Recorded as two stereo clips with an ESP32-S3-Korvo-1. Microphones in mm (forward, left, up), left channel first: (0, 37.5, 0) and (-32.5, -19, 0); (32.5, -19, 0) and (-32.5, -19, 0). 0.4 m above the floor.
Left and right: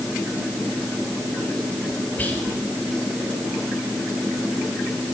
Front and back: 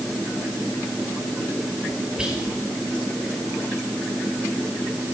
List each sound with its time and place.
2.2 s whispering: 110° left, 1.7 m